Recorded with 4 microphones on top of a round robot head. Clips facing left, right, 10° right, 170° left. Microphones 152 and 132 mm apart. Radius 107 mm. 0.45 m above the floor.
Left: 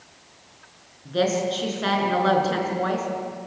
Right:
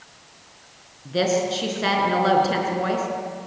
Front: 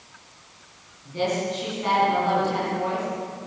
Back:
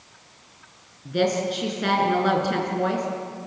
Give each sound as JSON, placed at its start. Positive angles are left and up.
{"t": 1.1, "sound": "a woman speaking", "azimuth_deg": -170, "distance_m": 6.0}